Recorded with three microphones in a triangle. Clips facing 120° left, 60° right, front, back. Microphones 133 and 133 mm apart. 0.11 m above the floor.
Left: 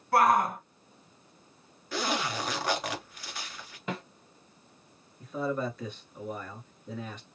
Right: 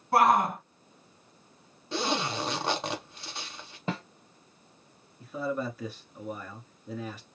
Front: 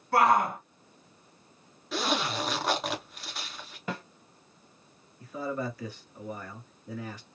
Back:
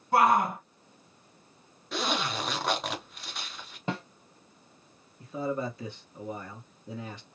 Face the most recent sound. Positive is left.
turn(degrees=-140)